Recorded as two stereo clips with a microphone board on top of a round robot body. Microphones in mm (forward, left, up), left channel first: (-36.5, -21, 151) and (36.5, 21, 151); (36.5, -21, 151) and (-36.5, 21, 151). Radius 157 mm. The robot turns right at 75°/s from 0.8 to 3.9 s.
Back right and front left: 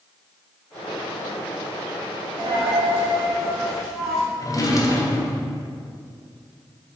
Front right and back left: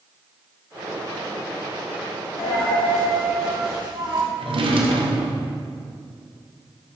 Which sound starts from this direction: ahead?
A dropped coin, at 2.4 s.